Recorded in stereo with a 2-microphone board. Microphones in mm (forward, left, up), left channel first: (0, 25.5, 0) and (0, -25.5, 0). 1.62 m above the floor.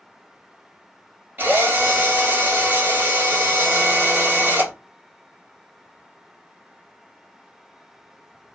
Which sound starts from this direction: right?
A drill, at 1.4 s.